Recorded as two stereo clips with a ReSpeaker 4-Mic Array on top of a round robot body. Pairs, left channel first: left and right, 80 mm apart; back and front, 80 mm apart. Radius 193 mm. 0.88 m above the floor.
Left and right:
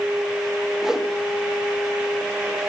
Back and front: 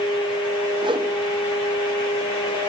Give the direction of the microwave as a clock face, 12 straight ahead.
No microwave in this recording.